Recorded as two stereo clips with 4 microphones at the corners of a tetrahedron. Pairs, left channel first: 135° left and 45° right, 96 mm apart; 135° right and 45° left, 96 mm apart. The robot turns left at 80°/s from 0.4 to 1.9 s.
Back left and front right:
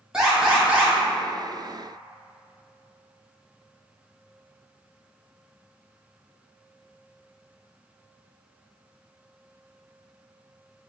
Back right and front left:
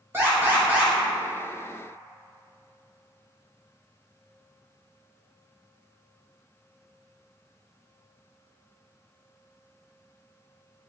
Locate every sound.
0.1 s an alarm: 25° left, 1.4 m; by 0.9 s 15° right, 1.4 m